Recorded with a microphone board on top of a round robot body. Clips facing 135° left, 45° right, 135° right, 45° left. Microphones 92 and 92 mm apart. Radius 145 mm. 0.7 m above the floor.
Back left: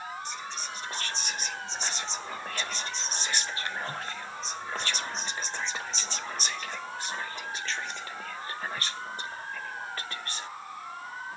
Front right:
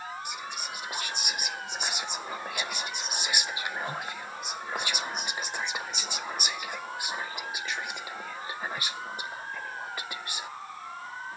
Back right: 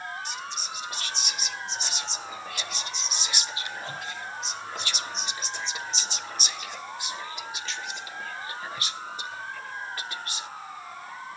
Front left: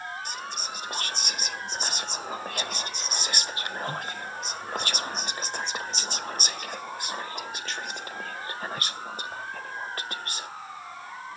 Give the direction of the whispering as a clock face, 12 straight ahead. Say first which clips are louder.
Even, front left 1 dB; 11 o'clock.